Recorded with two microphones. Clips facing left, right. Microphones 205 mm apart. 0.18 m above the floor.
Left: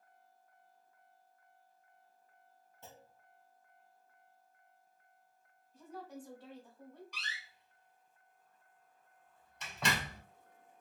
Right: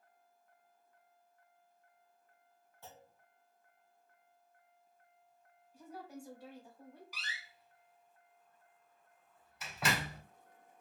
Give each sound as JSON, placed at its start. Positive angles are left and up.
{"t": 2.8, "sound": "a clunk", "side_deg": 20, "distance_m": 1.1}
{"t": 5.7, "sound": "a woman speaking", "side_deg": -10, "distance_m": 1.4}
{"t": 7.1, "sound": "a door slam", "side_deg": -5, "distance_m": 0.7}